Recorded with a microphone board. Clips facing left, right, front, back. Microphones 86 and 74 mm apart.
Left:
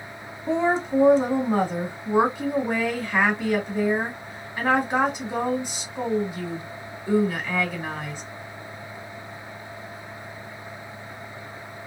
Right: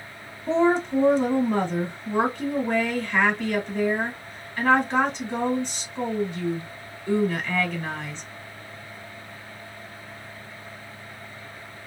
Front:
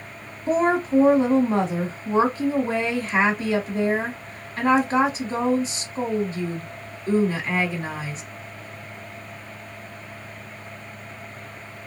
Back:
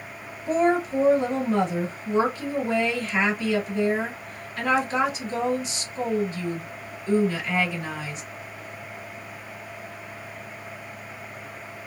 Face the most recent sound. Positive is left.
turn(degrees=15)